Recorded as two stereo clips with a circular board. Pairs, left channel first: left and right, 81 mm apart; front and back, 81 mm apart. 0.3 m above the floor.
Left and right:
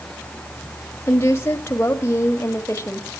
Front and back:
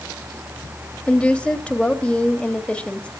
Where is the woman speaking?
70° left, 1.4 m.